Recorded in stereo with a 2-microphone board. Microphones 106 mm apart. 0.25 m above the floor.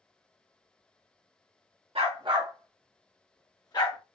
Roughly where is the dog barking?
Right.